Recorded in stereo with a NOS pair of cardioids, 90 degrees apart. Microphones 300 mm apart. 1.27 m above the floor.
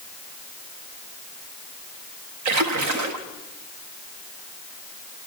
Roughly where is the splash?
Right.